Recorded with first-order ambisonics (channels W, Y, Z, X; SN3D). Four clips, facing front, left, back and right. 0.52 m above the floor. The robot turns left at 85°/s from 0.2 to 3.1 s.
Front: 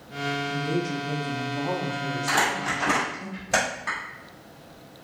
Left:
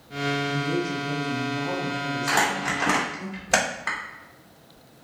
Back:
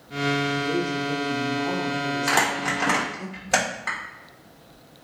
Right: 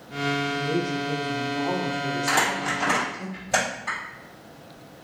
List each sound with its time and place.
0.5 s a woman speaking: 50° left, 0.7 m; by 3.3 s 175° right, 0.7 m
2.3 s crumpling: 175° right, 1.2 m; by 4.0 s 115° left, 1.2 m